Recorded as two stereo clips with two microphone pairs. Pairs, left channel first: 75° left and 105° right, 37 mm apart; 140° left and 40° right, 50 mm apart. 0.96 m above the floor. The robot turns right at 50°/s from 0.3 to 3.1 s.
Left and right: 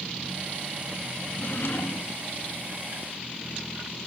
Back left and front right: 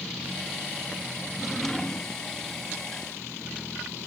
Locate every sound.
1.3 s a drawer: 35° left, 0.6 m; by 2.2 s 85° left, 0.6 m